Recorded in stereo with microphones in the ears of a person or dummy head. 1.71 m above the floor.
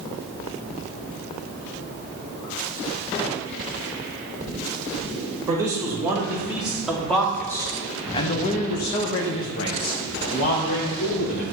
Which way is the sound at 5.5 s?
15° right (ahead or behind).